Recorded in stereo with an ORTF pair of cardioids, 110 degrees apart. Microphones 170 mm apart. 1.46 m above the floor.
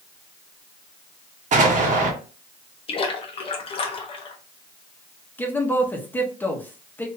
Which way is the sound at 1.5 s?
50° right.